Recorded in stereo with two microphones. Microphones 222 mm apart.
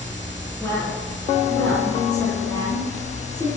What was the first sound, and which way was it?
A woman speaking, 10° left (ahead or behind).